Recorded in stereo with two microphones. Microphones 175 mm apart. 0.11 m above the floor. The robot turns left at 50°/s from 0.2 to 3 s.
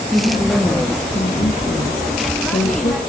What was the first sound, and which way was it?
A woman speaking, 170° right.